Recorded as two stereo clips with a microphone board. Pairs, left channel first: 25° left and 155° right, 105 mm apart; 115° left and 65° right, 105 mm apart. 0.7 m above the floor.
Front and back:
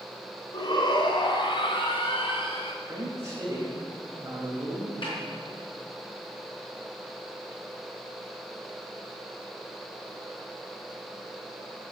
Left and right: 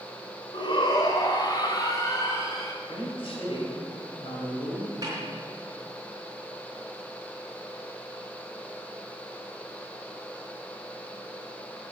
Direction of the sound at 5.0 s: 15° right.